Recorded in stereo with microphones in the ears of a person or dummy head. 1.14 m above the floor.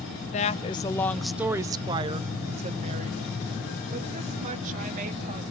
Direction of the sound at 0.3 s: 35° left (ahead or behind).